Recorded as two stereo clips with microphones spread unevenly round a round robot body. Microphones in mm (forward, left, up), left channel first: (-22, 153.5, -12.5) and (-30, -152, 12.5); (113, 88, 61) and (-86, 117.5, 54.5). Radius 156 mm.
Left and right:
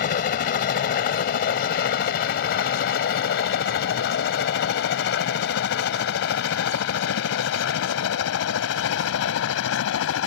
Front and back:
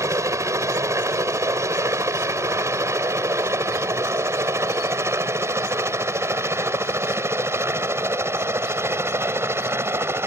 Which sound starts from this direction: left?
A helicopter, at 0.0 s.